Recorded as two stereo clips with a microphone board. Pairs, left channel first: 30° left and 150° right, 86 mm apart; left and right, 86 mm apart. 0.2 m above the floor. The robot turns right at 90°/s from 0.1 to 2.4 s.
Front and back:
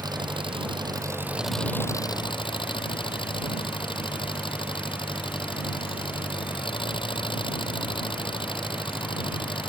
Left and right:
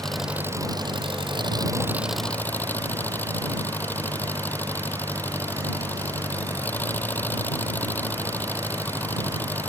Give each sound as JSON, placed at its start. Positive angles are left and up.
{"t": 0.0, "sound": "an engine running", "azimuth_deg": 175}